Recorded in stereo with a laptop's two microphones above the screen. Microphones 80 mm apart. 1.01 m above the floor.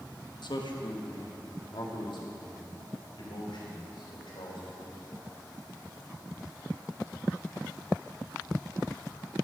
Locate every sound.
0.4 s a man speaking: 65° left (ahead or behind), 0.9 m; by 5.0 s 85° left, 3.5 m